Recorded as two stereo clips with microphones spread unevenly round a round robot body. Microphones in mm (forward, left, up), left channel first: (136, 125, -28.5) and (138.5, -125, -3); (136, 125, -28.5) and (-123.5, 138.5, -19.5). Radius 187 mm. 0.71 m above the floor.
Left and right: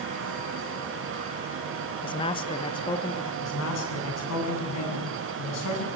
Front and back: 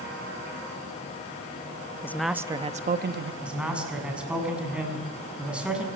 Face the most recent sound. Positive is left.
turn(degrees=90)